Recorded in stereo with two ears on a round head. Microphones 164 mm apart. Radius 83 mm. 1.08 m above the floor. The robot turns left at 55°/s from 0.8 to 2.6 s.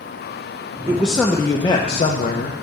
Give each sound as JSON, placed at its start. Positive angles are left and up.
{"t": 0.9, "sound": "a man speaking", "azimuth_deg": -165, "distance_m": 0.7}